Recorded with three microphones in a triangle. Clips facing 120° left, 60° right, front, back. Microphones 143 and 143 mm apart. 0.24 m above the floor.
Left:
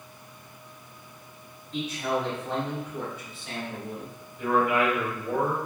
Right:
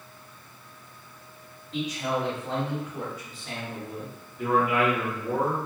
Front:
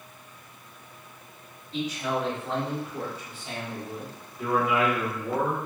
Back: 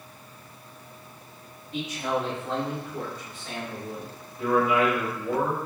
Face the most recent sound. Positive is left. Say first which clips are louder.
# even, back 2 dB
turn(degrees=-75)